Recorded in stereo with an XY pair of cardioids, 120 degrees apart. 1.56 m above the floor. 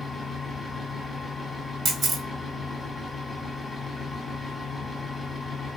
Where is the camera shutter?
50° right, 0.8 m.